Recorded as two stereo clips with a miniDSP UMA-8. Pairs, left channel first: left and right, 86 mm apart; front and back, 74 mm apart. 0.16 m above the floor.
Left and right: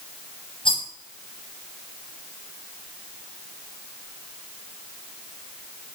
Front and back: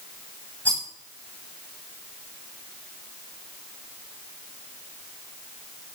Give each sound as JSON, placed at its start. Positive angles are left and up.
{"t": 0.7, "sound": "a rattle", "azimuth_deg": 70, "distance_m": 7.0}